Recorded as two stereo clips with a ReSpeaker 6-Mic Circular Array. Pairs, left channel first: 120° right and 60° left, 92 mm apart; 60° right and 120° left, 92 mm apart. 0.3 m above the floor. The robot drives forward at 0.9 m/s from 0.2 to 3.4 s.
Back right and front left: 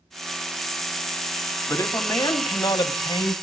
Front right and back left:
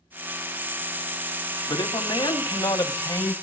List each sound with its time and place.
1.7 s a man speaking: 75° right, 2.0 m; by 3.3 s 120° right, 2 m